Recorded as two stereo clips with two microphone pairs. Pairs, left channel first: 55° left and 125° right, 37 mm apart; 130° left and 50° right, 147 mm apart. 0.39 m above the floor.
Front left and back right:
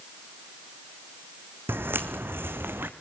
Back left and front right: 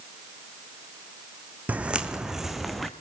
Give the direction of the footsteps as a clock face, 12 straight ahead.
4 o'clock.